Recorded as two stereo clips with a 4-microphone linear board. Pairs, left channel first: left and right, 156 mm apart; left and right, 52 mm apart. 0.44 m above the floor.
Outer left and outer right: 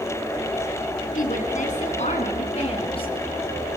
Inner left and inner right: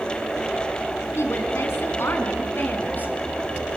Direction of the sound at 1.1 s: 70° left (ahead or behind).